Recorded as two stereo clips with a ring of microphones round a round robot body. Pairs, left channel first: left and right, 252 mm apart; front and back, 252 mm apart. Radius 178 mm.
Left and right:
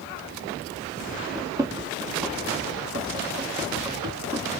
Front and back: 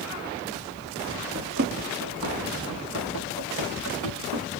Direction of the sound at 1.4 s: 160° right.